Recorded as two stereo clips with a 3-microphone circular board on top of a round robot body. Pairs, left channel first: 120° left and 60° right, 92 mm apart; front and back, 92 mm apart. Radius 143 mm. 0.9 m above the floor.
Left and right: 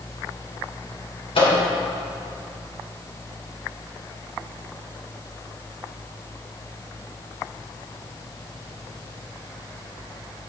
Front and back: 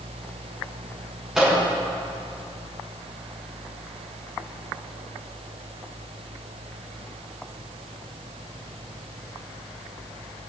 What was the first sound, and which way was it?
A microwave, 95° left.